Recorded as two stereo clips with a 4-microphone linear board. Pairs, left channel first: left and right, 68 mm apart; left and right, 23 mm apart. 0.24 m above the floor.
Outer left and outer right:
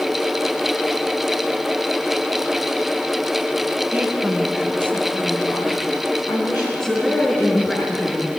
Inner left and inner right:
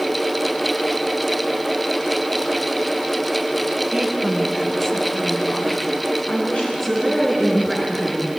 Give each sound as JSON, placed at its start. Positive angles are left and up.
{"t": 3.9, "sound": "a woman speaking", "side_deg": -15, "distance_m": 2.0}
{"t": 6.8, "sound": "a woman speaking", "side_deg": 10, "distance_m": 3.5}